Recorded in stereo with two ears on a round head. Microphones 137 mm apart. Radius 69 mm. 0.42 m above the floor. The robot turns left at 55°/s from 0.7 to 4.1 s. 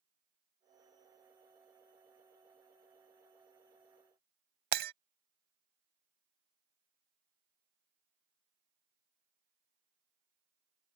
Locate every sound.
4.7 s breaking glass: 65° right (ahead or behind)